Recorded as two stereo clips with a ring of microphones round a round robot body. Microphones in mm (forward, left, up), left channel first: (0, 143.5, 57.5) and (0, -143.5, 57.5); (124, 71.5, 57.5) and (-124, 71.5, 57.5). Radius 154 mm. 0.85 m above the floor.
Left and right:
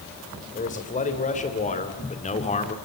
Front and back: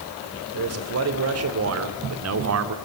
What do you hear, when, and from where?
0.5 s a man speaking: 155° left, 3 m; by 2.8 s 160° left, 1.9 m